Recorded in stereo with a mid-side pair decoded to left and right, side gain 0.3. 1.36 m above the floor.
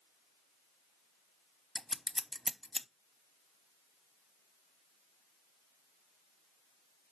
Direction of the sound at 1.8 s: 10° left.